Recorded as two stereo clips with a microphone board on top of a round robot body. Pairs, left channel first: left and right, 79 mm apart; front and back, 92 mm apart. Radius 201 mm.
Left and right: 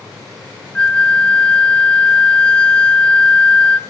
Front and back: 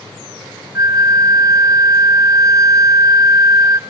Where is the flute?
160° left, 0.6 m.